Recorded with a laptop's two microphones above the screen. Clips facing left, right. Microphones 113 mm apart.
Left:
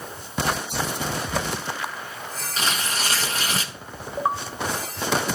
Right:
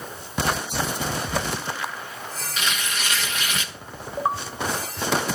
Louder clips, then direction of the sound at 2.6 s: Left 2 dB; 35° left (ahead or behind).